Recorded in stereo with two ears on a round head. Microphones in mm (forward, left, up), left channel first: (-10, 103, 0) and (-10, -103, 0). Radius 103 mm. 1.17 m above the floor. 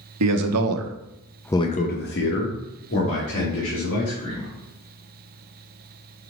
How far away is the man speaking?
About 1.2 m.